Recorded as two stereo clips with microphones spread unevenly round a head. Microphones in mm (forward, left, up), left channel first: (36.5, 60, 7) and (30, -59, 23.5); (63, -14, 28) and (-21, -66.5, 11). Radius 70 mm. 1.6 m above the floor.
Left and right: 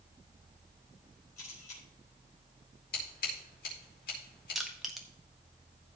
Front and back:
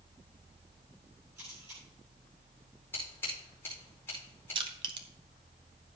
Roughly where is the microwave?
No microwave in this recording.